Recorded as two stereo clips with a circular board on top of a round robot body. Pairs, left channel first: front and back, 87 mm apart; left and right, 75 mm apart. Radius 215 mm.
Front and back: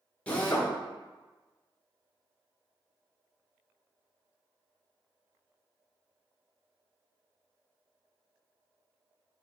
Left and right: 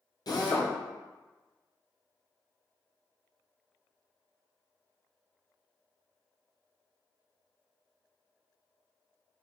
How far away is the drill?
About 2.5 m.